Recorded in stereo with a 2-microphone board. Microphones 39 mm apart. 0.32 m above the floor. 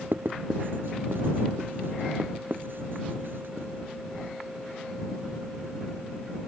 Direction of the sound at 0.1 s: 65° right (ahead or behind).